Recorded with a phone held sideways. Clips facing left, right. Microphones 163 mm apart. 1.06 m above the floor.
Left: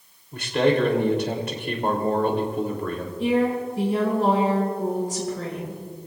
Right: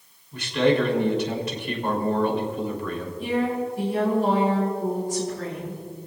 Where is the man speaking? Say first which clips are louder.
Even; 55° left (ahead or behind), 3 m.